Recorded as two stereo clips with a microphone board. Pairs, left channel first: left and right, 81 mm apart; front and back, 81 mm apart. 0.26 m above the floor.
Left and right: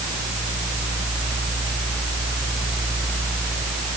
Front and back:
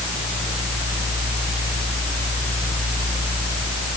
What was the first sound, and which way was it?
Only background noise.